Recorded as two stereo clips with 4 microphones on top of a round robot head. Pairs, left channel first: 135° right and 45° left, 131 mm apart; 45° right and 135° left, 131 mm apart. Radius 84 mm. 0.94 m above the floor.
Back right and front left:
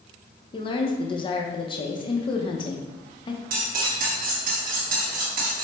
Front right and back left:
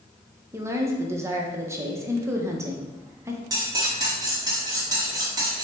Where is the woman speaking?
165° right, 0.7 m.